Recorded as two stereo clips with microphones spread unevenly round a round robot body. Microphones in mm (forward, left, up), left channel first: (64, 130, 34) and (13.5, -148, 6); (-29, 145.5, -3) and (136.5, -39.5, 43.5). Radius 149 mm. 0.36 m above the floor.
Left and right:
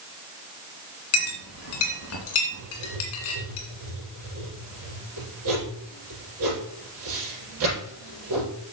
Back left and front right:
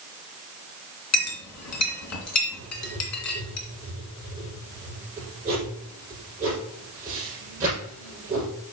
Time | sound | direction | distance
1.1 | a clink | 125° left | 2 m
2.6 | writing | 130° right | 5.5 m